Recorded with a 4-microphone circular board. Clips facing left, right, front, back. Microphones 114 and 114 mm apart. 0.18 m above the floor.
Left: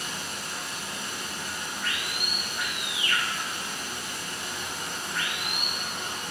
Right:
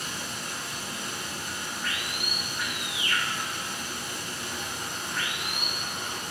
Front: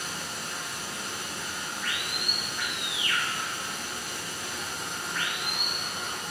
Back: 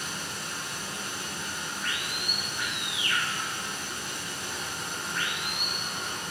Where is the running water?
130° right, 1.2 m.